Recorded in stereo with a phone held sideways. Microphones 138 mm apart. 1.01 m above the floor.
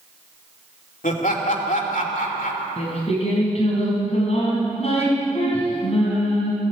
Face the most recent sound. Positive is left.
turn(degrees=50)  # may be behind; listen again after turning